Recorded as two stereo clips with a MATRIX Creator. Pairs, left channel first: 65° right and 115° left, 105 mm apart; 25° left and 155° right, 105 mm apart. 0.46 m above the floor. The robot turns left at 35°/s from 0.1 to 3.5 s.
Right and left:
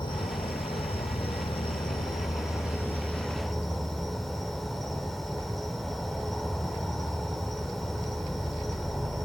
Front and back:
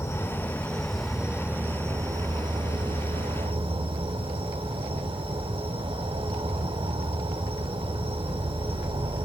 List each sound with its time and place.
0.0 s an insect: 35° right, 0.9 m; by 9.3 s 155° right, 0.9 m